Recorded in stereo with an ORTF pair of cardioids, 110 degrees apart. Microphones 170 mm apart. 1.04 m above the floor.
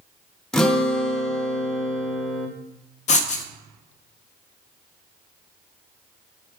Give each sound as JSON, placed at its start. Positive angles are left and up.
{"t": 0.5, "sound": "a guitar", "azimuth_deg": 5, "distance_m": 0.8}
{"t": 3.1, "sound": "writing", "azimuth_deg": 45, "distance_m": 0.6}